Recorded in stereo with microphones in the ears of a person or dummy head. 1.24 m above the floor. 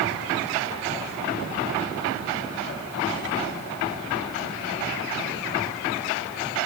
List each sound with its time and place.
Only background noise.